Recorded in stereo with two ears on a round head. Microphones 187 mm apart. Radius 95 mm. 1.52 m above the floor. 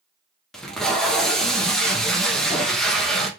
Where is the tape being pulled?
Centre (ahead or behind), 0.5 m.